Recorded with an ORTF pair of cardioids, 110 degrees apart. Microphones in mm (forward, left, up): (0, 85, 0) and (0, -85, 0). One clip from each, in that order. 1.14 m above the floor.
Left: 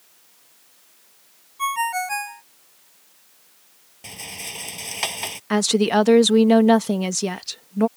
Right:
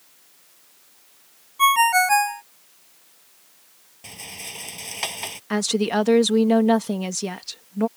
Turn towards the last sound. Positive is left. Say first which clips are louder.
# left 4 dB
turn(degrees=20)